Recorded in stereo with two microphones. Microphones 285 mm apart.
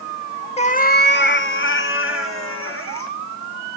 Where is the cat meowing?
20° left (ahead or behind), 0.6 m; by 3.1 s 50° left (ahead or behind), 2.5 m.